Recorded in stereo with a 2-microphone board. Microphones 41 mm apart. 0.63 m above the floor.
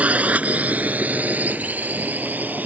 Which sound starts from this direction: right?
A drone, at 0.0 s.